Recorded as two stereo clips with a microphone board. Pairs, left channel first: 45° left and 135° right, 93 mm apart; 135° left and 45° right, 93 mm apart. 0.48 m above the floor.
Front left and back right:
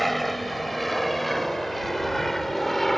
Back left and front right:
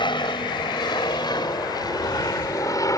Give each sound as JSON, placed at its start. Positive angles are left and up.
{"t": 0.0, "sound": "an aircraft", "azimuth_deg": 135}